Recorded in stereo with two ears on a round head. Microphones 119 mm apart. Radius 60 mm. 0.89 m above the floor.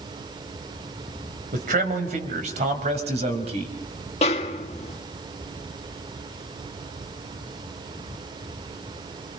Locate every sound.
1.5 s a man speaking: 60° right (ahead or behind), 4 m; by 3.8 s 45° right (ahead or behind), 4.5 m
4.2 s a snare drum: 50° left (ahead or behind), 1.9 m